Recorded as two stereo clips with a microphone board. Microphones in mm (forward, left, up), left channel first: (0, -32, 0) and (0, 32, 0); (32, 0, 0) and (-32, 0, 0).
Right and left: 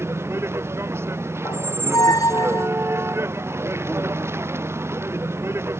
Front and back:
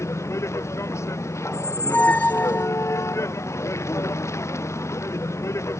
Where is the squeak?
65° right.